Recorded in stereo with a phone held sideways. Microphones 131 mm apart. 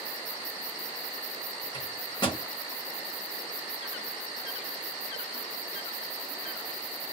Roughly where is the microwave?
Left.